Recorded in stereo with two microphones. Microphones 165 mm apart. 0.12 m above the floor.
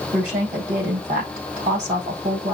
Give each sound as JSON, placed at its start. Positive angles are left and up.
{"t": 0.1, "sound": "a woman speaking", "side_deg": -45, "distance_m": 4.5}